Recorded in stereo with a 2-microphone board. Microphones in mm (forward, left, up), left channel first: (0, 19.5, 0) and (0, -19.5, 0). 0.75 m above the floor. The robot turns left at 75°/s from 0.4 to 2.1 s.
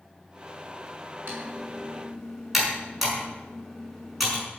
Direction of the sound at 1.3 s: 65° right (ahead or behind).